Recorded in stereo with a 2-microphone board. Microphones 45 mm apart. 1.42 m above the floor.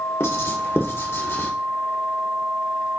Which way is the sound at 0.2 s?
75° left (ahead or behind).